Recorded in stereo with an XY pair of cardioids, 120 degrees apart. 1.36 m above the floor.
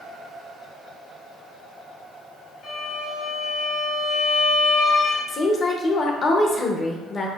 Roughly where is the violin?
Ahead left.